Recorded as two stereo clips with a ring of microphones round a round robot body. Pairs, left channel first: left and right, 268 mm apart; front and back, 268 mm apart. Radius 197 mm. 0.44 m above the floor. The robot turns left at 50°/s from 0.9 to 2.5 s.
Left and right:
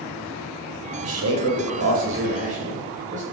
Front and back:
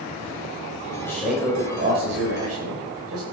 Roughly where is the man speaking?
Right.